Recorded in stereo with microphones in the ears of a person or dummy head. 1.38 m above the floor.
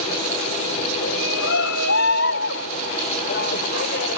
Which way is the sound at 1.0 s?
65° left (ahead or behind).